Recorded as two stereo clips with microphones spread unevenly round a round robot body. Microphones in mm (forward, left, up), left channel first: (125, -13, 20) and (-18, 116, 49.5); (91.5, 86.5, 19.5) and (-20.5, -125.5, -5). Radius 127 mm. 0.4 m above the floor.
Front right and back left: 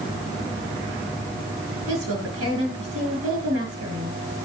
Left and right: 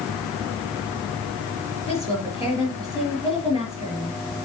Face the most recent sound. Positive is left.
turn(degrees=165)